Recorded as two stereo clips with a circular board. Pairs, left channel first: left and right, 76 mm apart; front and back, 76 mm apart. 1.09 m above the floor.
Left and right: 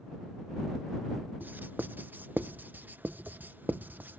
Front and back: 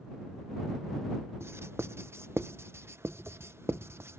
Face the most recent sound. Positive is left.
turn(degrees=-145)